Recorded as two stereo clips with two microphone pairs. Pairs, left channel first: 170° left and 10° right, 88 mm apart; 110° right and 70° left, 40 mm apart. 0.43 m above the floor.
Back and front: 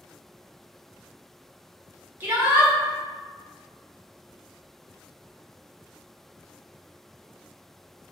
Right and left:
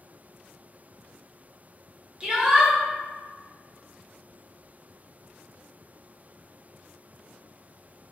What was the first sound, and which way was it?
A shout, 30° left.